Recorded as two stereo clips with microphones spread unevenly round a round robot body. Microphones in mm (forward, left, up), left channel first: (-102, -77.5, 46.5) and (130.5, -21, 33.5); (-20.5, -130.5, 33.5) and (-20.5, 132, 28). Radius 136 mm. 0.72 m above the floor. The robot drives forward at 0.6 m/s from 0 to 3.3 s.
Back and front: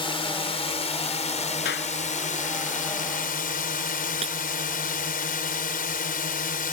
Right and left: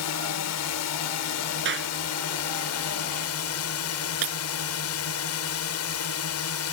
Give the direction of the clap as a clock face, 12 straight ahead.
7 o'clock.